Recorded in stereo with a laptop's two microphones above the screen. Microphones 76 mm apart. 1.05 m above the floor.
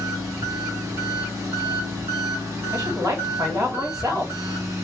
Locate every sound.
0.0 s an engine running: 35° right (ahead or behind), 2 m
2.7 s a woman speaking: 45° right (ahead or behind), 2 m